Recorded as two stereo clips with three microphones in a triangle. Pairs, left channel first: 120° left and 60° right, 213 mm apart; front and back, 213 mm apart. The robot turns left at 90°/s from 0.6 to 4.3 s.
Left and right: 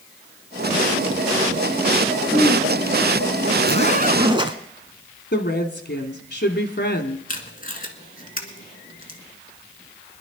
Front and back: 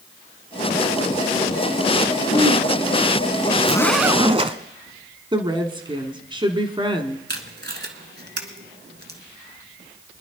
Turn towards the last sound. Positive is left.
turn(degrees=160)